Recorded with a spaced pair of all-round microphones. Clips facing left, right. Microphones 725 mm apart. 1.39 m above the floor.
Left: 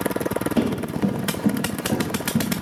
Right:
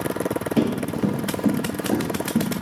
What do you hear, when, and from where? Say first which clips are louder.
0.6 s running footsteps: right 3 dB; 35° right (ahead or behind), 1.6 m; by 2.5 s 25° left (ahead or behind), 1.5 m